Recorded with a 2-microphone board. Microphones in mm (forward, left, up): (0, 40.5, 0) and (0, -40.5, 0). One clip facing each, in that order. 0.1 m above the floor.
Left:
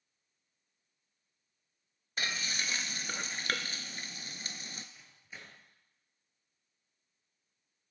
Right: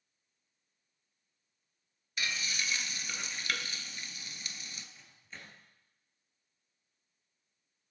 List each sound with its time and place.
2.2 s frying: 40° left (ahead or behind), 0.6 m
5.0 s a microwave: 10° left (ahead or behind), 1.4 m